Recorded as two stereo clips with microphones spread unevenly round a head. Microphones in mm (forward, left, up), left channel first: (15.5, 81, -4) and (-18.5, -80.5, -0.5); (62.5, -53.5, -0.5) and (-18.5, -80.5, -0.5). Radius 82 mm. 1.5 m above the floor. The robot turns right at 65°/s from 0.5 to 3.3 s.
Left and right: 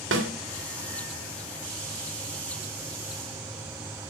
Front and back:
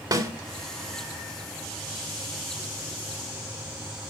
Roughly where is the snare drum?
Behind right.